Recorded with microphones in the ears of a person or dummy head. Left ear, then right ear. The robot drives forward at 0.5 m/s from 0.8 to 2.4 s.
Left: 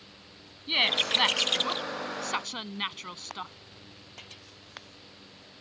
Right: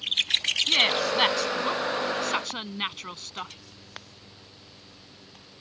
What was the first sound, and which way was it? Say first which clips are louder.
A woman speaking: even; 5° left (ahead or behind).